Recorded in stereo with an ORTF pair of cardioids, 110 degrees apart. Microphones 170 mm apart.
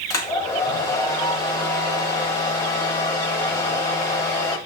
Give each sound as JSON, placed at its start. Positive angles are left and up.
{"t": 0.1, "sound": "a hair dryer", "azimuth_deg": 20, "distance_m": 1.3}